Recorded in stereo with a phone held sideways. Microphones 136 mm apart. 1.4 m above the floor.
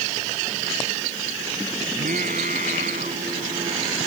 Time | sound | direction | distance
1.9 | singing | 85° right | ?